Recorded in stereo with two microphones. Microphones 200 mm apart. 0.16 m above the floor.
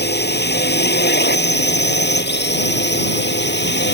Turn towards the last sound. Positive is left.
turn(degrees=65)  # may be behind; listen again after turning